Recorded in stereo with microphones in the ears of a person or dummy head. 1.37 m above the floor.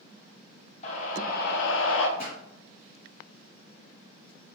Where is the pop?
65° left (ahead or behind), 1.6 m.